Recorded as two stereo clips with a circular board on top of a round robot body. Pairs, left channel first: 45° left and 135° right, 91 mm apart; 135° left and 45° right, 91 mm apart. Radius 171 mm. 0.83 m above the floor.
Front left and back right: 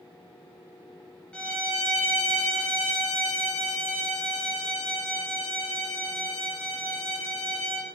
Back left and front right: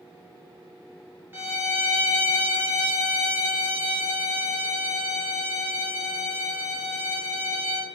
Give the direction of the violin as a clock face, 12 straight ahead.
1 o'clock.